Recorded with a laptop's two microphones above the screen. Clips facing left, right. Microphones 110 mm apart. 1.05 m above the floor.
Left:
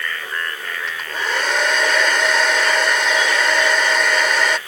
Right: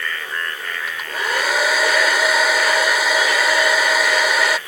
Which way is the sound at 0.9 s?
5° right (ahead or behind).